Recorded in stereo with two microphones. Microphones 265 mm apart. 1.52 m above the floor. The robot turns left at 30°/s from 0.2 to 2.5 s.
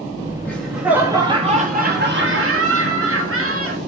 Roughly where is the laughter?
Ahead.